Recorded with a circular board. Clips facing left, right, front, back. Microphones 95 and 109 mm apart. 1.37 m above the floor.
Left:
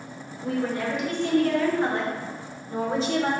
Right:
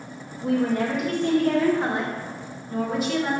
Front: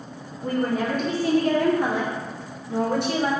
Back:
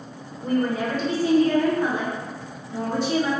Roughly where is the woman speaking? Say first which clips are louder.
Right 4 dB, back 1 dB; ahead right.